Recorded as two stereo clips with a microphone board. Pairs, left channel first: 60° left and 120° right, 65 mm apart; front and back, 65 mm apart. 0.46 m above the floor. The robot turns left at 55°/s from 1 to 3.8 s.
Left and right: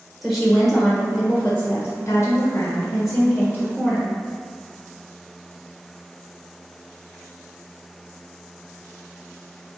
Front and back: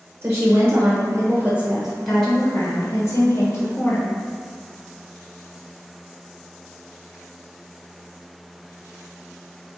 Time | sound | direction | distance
0.2 | a woman speaking | 145° left | 1.3 m